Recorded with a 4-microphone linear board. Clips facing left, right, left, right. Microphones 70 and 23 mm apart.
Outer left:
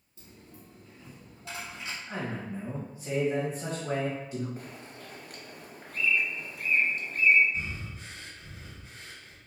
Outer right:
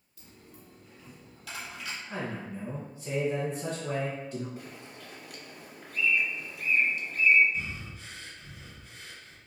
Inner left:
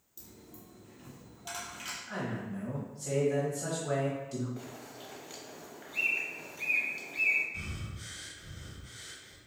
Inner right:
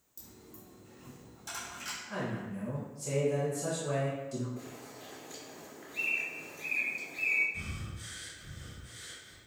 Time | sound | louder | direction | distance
0.2 | a dropped coin | outer left 1 dB, inner left 1 dB | 30° left (ahead or behind) | 1.5 m
2.1 | a man speaking | outer left 1 dB, even | 20° left (ahead or behind) | 1.2 m
4.6 | a bird | outer left 1 dB, inner left 1 dB | 45° left (ahead or behind) | 0.7 m
7.5 | breathing | even, even | 35° left (ahead or behind) | 0.9 m